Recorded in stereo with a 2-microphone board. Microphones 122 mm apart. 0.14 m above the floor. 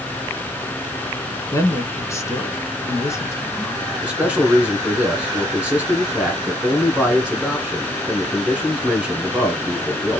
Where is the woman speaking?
25° left (ahead or behind), 1.1 m.